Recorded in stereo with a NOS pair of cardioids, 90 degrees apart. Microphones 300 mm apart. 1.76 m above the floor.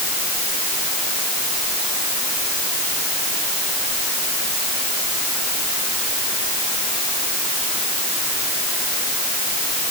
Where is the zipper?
No zipper in this recording.